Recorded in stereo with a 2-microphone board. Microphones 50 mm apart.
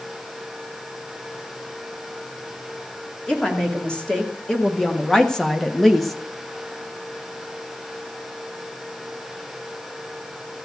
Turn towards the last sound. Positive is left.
turn(degrees=0)  # may be behind; listen again after turning